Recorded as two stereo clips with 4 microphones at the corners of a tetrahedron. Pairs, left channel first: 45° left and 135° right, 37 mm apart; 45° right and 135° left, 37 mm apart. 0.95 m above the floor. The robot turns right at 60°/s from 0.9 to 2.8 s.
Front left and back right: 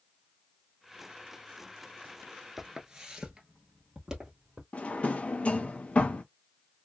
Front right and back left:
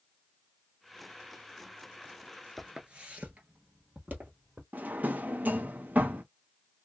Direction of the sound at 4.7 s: 95° left.